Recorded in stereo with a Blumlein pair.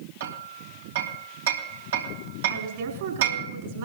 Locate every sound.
0.2 s hammering: 65° right, 2.5 m
2.5 s a woman speaking: 55° right, 4 m